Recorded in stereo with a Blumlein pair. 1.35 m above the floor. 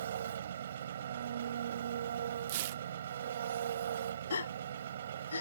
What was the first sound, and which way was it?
An engine running, 65° right.